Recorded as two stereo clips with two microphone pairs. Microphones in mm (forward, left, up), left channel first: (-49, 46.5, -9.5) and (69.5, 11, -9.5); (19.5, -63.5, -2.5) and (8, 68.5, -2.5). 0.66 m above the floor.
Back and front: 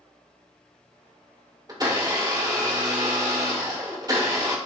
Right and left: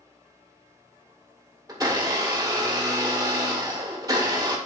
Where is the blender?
35° left, 2 m.